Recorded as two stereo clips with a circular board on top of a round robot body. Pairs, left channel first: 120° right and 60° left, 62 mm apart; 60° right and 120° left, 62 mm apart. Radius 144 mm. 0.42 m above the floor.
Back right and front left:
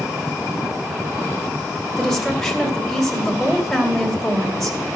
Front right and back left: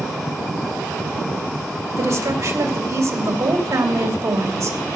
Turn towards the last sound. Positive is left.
turn(degrees=155)